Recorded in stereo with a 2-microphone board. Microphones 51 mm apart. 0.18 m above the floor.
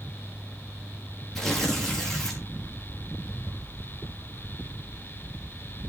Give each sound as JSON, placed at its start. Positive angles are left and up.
{"t": 1.4, "sound": "tearing paper", "side_deg": 10, "distance_m": 3.5}